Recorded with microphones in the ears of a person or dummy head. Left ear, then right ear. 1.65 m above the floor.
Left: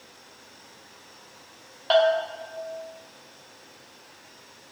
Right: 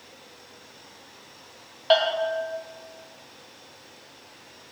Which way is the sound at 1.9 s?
Centre (ahead or behind).